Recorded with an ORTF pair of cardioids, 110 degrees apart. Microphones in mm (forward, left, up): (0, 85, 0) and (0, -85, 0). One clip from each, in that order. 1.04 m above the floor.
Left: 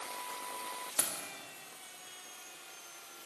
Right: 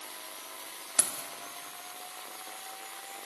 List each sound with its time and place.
1.0 s keys jangling: 20° right, 0.8 m